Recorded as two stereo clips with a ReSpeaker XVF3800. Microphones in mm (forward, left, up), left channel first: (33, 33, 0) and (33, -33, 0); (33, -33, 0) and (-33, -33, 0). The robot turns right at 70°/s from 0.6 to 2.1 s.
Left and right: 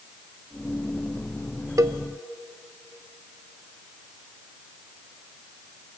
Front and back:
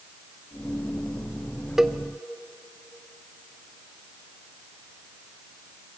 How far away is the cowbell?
About 0.9 m.